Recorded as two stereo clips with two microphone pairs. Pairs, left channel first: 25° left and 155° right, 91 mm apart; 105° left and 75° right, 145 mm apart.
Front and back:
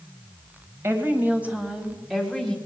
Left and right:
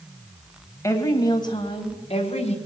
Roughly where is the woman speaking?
Behind.